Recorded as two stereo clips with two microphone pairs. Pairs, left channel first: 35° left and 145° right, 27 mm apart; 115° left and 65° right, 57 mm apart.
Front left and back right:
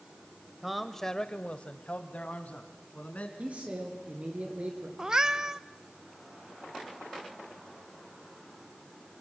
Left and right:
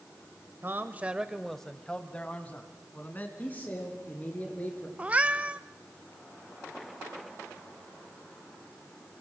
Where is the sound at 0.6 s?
70° right, 1.1 m; by 3.3 s 60° left, 3.5 m.